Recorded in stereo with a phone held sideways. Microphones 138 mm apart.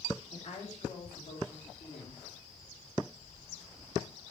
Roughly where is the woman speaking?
Left.